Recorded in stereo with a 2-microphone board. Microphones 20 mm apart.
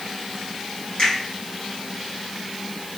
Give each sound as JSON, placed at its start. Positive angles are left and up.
{"t": 1.0, "sound": "a finger snap", "side_deg": 55, "distance_m": 2.0}